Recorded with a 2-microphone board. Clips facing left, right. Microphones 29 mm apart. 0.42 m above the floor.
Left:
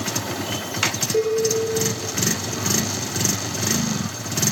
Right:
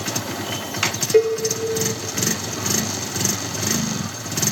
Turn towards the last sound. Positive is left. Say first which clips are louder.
# right 5 dB
turn(degrees=-45)  # may be behind; listen again after turning